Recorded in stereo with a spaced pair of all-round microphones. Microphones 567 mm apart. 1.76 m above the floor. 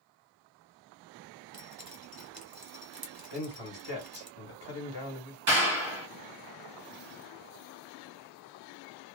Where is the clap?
55° right (ahead or behind), 1.3 m.